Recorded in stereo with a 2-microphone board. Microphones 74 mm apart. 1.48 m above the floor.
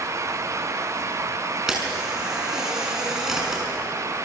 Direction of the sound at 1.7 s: 5° right (ahead or behind).